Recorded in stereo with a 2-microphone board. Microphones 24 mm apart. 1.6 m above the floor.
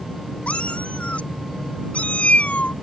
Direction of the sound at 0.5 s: 70° left (ahead or behind).